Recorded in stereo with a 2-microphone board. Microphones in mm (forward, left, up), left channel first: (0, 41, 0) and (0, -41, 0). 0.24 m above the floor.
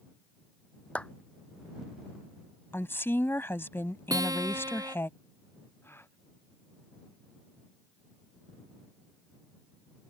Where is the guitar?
45° right (ahead or behind).